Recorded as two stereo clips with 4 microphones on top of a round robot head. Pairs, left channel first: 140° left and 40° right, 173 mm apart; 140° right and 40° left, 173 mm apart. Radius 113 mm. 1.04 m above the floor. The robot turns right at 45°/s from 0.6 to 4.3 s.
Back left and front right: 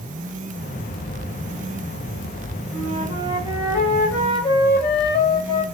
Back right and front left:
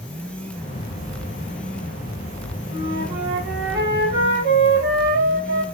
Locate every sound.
2.7 s a flute: 5° left, 1.4 m; by 5.6 s 75° left, 1.4 m